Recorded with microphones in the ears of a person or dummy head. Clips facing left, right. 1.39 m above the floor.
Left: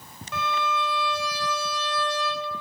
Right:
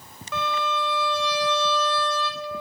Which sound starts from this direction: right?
A violin, at 0.3 s.